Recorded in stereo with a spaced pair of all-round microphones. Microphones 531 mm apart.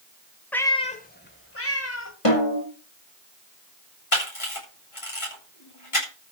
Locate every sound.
0.5 s a cat meowing: 5° left (ahead or behind), 1.0 m; by 2.1 s 30° left (ahead or behind), 1.8 m
2.2 s a snare drum: 75° left (ahead or behind), 4.5 m
4.1 s a camera shutter: 70° left (ahead or behind), 8 m